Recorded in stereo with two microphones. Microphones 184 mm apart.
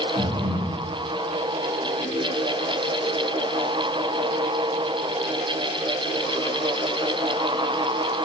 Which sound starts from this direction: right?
Breathing, at 0.2 s.